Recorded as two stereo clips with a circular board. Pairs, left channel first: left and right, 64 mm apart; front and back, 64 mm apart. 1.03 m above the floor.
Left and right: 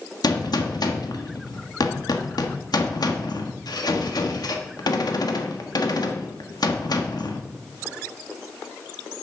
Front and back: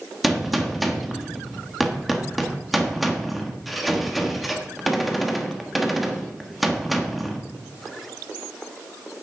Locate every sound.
0.2 s a gunshot: 90° left, 1.2 m